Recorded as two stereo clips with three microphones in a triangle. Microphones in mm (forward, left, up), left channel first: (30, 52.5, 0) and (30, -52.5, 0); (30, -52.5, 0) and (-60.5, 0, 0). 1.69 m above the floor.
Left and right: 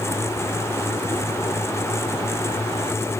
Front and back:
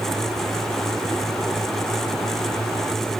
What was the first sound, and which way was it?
Only background noise.